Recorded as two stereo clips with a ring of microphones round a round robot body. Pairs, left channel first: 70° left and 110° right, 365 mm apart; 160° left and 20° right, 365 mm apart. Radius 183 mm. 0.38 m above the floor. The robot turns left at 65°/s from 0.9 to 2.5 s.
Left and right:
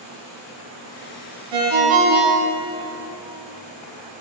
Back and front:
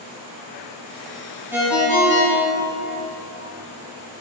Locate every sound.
1.5 s a ringtone: 105° right, 2.5 m; by 2.8 s 170° right, 2.5 m